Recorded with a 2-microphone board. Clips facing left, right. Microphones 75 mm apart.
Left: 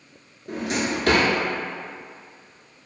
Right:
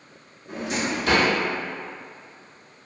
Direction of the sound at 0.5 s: 70° left (ahead or behind).